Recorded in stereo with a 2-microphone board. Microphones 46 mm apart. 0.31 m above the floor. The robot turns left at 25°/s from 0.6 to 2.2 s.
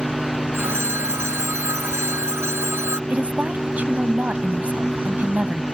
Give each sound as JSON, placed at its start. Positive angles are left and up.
{"t": 0.5, "sound": "a phone ringing", "azimuth_deg": -65}
{"t": 3.1, "sound": "a woman speaking", "side_deg": -30}